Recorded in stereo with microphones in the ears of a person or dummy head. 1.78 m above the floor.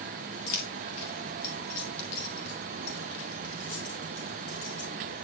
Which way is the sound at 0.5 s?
50° left (ahead or behind).